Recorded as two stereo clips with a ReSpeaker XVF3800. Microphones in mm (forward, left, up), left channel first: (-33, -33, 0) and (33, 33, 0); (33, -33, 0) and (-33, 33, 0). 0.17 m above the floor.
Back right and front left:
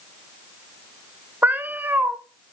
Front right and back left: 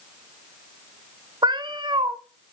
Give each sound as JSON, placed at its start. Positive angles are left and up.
{"t": 1.4, "sound": "a cat meowing", "azimuth_deg": 115, "distance_m": 1.3}